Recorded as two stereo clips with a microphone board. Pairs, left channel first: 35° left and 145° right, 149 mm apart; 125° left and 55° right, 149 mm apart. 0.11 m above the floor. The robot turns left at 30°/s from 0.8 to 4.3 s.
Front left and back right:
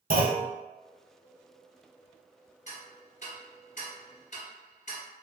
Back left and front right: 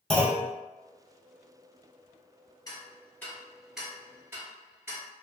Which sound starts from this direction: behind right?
A clunk, at 0.1 s.